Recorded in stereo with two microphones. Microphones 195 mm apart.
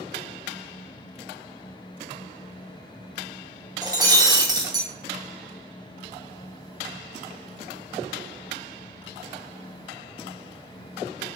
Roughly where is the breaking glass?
Centre.